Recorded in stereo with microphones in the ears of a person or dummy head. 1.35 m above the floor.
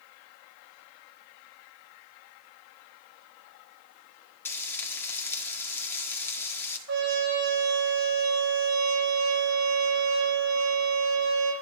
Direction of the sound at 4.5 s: 15° left (ahead or behind).